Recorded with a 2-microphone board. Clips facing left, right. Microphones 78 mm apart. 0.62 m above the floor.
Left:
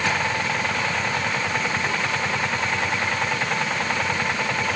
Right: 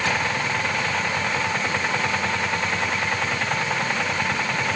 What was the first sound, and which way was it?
Only background noise.